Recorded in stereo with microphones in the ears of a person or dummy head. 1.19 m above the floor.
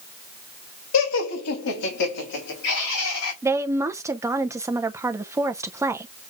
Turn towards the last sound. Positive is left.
turn(degrees=-15)  # may be behind; listen again after turning